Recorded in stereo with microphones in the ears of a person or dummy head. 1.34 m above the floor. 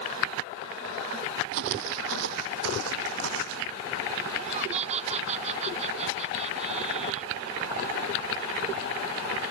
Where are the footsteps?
55° right (ahead or behind); by 3.7 s 70° right (ahead or behind).